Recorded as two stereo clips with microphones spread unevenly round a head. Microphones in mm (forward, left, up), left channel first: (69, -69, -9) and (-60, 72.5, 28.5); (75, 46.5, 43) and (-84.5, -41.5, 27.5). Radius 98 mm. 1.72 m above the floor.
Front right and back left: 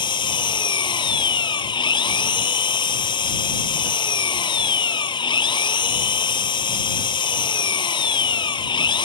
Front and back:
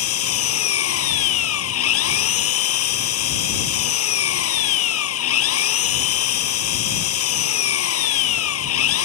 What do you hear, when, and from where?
0.0 s an engine running: 20° left